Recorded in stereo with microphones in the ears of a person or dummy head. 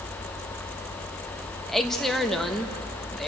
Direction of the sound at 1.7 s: 5° left (ahead or behind).